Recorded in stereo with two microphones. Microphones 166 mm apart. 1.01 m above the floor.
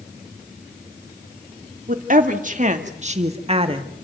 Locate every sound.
1.9 s a woman speaking: 55° right (ahead or behind), 2.5 m; by 3.9 s 30° right (ahead or behind), 1.7 m